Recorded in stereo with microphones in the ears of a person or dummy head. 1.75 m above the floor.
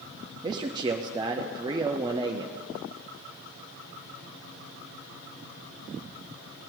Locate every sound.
0.4 s a man speaking: 25° right (ahead or behind), 0.6 m